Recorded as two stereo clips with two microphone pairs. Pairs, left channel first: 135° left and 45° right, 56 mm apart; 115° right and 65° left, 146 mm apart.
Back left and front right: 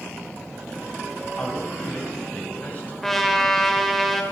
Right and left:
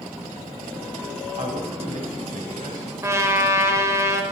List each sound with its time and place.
1.4 s a man speaking: 80° left, 2.5 m
3.0 s a trumpet: 60° left, 1.3 m